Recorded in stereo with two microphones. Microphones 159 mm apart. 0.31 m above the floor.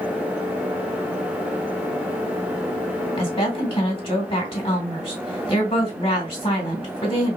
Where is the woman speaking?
35° left (ahead or behind), 2.5 m.